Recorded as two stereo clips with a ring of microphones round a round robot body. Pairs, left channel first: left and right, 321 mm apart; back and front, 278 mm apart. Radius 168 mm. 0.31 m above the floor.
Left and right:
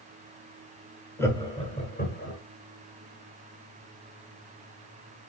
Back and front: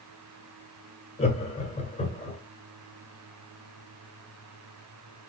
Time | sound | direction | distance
1.2 | laughter | 160° left | 1.4 m